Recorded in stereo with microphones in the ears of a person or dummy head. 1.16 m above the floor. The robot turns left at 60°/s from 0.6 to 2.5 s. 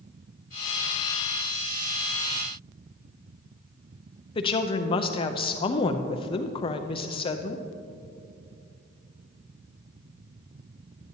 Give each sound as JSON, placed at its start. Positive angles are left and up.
{"t": 4.3, "sound": "a woman speaking", "side_deg": 30, "distance_m": 0.5}